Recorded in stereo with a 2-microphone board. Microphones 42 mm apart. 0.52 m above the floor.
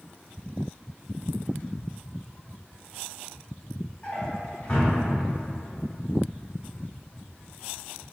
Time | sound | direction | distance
4.0 | a drawer | 25° left (ahead or behind) | 1.5 m